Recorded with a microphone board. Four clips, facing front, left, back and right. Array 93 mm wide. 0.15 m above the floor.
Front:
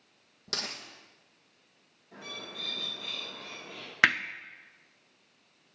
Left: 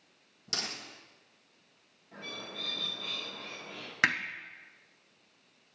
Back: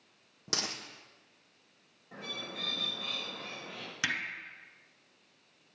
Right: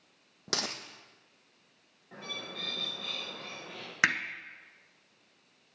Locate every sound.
0.5 s a dropped coin: 100° right, 1.3 m
2.1 s a bird: 120° right, 5.5 m
4.0 s hammering: 10° right, 0.6 m